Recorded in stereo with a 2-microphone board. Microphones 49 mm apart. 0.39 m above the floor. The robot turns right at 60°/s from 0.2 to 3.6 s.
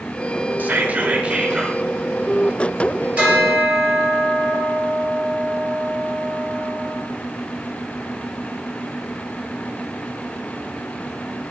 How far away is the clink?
No clink in this recording.